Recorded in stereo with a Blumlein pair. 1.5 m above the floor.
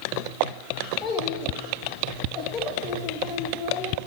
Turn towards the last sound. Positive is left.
turn(degrees=25)